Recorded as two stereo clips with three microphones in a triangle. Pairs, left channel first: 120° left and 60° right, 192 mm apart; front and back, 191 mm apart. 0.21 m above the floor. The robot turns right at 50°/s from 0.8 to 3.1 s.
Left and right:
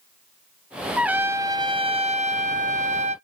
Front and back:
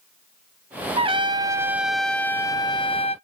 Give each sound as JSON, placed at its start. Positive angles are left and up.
{"t": 1.0, "sound": "a trumpet", "azimuth_deg": -140, "distance_m": 0.5}